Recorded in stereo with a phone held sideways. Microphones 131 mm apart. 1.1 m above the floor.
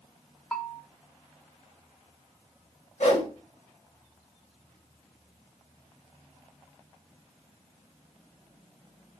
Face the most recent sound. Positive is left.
turn(degrees=70)  # may be behind; listen again after turning